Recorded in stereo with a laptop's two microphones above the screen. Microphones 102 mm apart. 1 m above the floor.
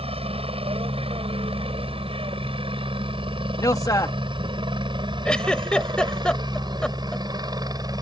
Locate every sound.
0.0 s a helicopter: 70° right (ahead or behind); by 8.0 s 40° right (ahead or behind)
3.6 s a man speaking: 35° left (ahead or behind)
5.2 s a giggle: 10° left (ahead or behind)